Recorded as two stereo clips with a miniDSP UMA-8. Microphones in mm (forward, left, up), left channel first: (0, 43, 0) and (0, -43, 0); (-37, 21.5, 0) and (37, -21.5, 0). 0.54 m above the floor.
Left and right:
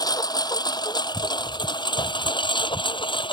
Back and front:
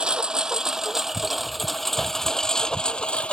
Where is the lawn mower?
50° left; by 3.3 s 75° left.